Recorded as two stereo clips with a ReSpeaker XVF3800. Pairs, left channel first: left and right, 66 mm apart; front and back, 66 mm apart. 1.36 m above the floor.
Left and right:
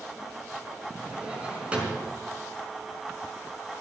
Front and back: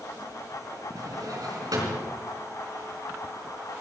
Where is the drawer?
160° right, 4 m.